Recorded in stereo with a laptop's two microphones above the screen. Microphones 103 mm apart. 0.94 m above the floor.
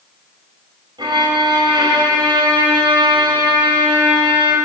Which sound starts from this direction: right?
A violin, at 1.0 s.